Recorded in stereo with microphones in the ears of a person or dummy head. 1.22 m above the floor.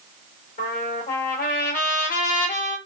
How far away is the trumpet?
About 1.9 m.